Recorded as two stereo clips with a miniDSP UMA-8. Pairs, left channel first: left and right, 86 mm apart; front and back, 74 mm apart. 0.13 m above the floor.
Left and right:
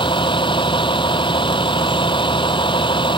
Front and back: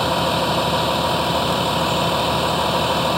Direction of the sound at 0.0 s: 90° left.